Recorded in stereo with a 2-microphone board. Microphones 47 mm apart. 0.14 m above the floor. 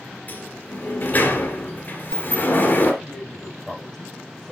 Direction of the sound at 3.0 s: 5° left (ahead or behind).